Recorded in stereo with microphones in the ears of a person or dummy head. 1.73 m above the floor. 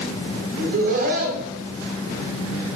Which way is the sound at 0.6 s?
50° right (ahead or behind).